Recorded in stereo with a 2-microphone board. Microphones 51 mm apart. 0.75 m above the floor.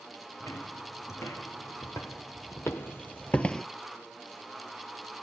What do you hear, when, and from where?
0.4 s footsteps: 75° left (ahead or behind), 3 m; by 3.7 s 10° left (ahead or behind), 0.7 m